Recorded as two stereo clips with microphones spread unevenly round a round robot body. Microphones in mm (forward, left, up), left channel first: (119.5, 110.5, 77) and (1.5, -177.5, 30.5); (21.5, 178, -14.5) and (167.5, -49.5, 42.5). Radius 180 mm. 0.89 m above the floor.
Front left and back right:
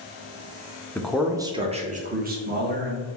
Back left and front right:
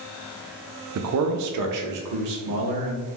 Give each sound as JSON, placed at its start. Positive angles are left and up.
{"t": 0.9, "sound": "a man speaking", "azimuth_deg": -20, "distance_m": 0.7}